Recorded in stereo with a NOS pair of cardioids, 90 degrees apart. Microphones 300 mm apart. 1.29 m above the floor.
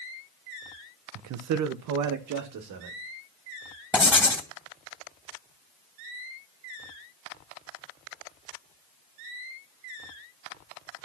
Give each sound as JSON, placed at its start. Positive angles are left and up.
{"t": 1.1, "sound": "a man speaking", "azimuth_deg": -65, "distance_m": 0.8}
{"t": 3.9, "sound": "writing", "azimuth_deg": 5, "distance_m": 2.5}